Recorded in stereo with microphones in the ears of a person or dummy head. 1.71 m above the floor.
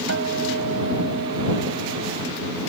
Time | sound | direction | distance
0.1 | a guitar | 75° right (ahead or behind) | ?